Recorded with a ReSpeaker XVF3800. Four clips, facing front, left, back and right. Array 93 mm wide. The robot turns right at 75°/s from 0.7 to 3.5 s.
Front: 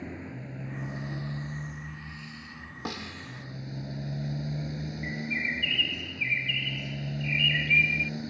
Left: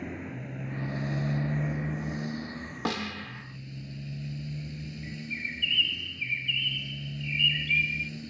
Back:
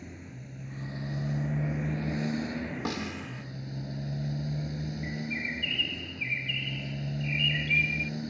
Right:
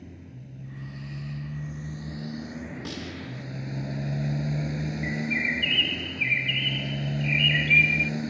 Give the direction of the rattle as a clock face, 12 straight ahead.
I don't hear a rattle.